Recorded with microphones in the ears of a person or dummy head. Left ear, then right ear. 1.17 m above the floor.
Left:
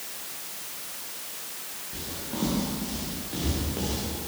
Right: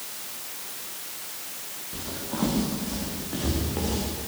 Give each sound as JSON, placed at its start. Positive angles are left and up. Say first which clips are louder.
{"t": 1.9, "sound": "footsteps", "louder": "right 2 dB", "side_deg": -25, "distance_m": 6.0}